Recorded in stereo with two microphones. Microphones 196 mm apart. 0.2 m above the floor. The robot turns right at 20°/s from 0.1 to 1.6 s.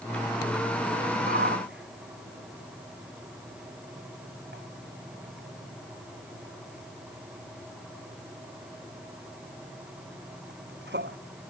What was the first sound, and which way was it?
A shout, 55° right (ahead or behind).